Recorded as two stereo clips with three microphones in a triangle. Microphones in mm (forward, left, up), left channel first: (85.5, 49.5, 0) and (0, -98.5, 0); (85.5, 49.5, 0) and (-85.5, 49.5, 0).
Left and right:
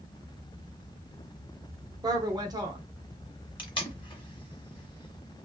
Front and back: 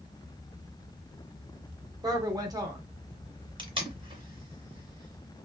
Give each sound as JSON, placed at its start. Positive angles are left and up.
{"t": 2.0, "sound": "a woman speaking", "azimuth_deg": -150, "distance_m": 0.8}
{"t": 3.6, "sound": "tape being pulled", "azimuth_deg": 120, "distance_m": 0.9}